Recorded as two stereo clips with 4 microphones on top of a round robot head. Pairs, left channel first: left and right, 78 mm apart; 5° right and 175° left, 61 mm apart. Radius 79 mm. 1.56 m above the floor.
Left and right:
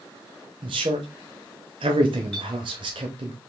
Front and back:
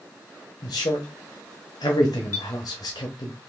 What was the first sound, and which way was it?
A man speaking, 50° right.